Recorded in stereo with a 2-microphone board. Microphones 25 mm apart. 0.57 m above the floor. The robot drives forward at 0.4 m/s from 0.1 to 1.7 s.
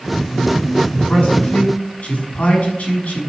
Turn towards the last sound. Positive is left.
turn(degrees=75)  # may be behind; listen again after turning